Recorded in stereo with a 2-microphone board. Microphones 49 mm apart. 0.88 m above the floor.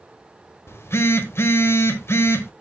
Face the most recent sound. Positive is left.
turn(degrees=65)  # may be behind; listen again after turning